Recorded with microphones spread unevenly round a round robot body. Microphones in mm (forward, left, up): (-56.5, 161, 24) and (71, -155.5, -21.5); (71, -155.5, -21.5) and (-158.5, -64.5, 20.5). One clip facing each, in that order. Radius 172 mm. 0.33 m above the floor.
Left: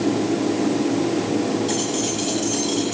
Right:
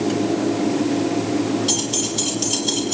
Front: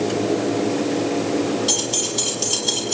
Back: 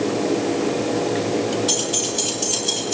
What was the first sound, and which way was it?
Keys jangling, 45° right.